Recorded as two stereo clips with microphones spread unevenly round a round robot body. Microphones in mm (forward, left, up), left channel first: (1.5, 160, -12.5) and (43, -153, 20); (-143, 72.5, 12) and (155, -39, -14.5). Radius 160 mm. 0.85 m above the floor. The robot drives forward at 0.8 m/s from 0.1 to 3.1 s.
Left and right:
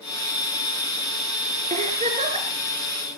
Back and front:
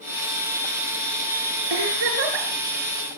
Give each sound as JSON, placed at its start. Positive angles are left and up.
{"t": 1.7, "sound": "a giggle", "azimuth_deg": -15, "distance_m": 6.0}